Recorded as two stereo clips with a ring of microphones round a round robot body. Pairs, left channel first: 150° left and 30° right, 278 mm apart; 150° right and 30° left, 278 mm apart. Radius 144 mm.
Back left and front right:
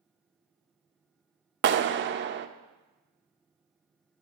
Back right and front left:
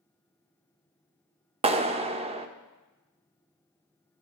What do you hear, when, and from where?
1.6 s a clap: 25° right, 0.6 m